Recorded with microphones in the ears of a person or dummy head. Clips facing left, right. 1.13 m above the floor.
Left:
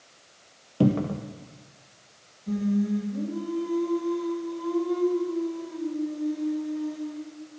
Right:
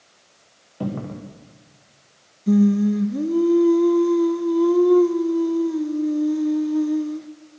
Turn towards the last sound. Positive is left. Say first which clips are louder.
# right 9 dB
turn(degrees=-65)  # may be behind; listen again after turning